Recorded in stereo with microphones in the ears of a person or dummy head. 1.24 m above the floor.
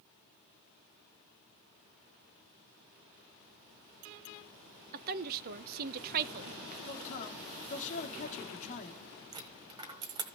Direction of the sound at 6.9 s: 45° left (ahead or behind).